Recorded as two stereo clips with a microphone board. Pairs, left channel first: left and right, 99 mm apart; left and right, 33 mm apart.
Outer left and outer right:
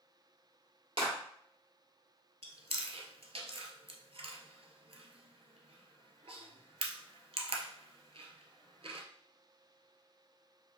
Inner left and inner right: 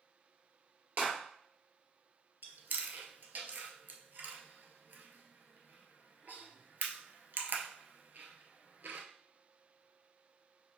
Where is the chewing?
70° right (ahead or behind), 0.7 m.